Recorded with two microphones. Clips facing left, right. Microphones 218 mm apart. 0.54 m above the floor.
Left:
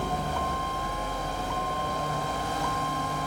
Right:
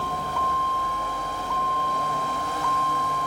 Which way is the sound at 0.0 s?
20° left (ahead or behind).